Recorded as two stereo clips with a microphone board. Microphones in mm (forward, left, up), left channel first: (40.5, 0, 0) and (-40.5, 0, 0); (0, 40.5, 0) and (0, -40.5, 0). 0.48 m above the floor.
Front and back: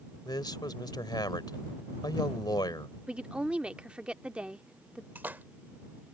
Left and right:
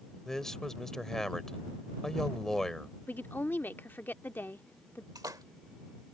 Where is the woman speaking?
120° left.